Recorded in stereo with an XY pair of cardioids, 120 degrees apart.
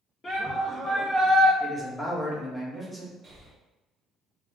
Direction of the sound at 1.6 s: Straight ahead.